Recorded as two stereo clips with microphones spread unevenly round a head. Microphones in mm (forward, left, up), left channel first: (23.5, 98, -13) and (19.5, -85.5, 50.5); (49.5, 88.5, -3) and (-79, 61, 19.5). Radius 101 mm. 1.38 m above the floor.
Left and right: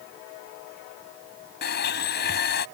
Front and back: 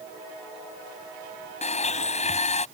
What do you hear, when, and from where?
1.6 s a blender: 50° left